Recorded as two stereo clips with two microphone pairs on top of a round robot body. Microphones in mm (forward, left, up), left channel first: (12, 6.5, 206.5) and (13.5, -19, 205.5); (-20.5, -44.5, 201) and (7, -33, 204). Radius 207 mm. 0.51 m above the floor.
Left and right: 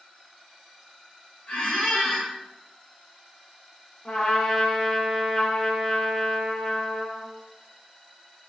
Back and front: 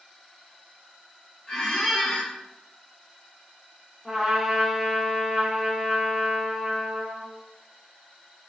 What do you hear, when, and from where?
1.5 s a squeak: 145° left, 0.9 m
4.0 s a trumpet: 105° left, 1.2 m